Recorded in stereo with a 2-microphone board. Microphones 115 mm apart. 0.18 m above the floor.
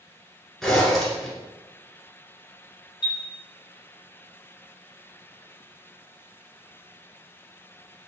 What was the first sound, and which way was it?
A zipper, centre (ahead or behind).